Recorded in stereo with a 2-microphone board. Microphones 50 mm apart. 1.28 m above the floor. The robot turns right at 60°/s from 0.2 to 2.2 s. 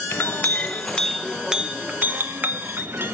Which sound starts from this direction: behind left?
A clink, at 0.1 s.